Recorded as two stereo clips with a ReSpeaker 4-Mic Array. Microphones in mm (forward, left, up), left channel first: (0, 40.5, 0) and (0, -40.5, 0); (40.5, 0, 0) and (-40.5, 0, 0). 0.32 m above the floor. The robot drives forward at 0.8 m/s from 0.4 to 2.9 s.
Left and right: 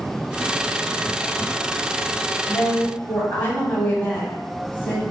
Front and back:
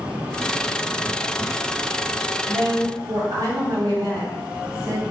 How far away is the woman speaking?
About 1.3 m.